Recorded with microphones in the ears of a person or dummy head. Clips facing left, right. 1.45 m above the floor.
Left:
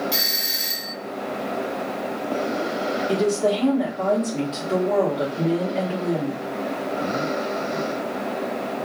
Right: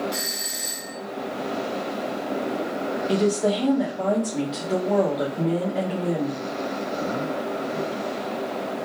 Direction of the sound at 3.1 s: 10° right (ahead or behind).